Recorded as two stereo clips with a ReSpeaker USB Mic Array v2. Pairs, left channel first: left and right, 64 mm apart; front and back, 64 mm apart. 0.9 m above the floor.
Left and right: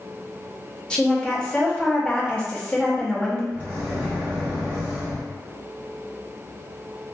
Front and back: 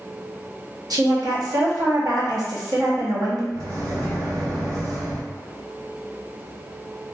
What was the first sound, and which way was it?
A woman speaking, 165° left.